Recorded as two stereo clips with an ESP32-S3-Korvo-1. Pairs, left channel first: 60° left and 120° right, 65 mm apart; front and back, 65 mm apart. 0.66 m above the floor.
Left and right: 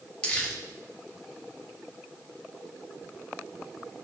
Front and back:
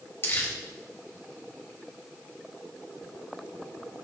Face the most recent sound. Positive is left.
turn(degrees=0)